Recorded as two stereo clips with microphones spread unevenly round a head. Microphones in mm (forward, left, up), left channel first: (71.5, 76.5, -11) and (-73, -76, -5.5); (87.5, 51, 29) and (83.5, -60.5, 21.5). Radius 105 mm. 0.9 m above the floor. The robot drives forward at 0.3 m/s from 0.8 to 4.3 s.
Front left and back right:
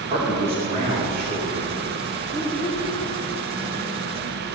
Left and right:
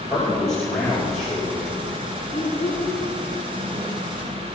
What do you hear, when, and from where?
0.1 s a man speaking: 175° left, 2.5 m; by 2.1 s straight behind, 3 m
2.3 s a child speaking: 170° left, 5 m